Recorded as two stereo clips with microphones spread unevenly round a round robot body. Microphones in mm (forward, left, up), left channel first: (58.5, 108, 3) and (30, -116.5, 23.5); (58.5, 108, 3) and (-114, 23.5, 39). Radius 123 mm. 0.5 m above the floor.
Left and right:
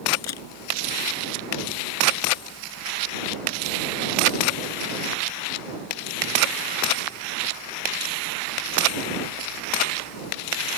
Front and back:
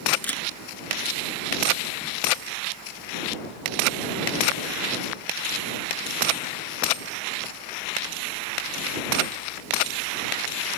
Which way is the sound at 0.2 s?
110° left.